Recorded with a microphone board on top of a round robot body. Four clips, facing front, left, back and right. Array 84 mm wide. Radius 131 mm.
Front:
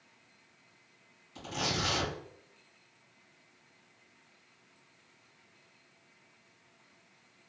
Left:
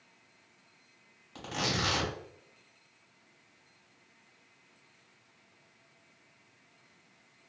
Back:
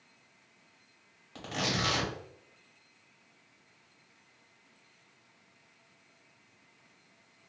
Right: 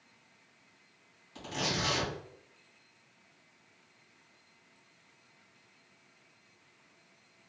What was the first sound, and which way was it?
Tearing paper, 145° left.